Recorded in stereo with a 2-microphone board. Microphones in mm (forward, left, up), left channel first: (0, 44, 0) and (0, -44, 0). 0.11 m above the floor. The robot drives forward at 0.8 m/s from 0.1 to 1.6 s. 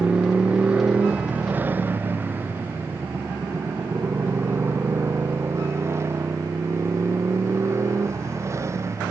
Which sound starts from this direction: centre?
A motorcycle, at 0.0 s.